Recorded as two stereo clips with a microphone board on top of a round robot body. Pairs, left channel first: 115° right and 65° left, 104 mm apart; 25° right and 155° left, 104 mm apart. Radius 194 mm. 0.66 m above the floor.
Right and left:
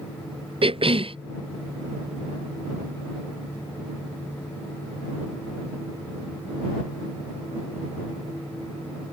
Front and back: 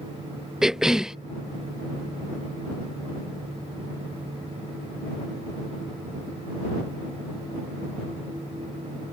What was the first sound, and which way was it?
A cough, 75° left.